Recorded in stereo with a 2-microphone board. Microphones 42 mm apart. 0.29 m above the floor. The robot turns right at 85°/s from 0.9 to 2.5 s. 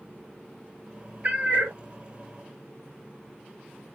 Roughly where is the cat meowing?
Behind right.